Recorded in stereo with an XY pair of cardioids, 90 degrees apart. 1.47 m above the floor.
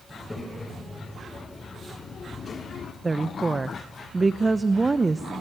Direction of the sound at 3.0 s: 25° right.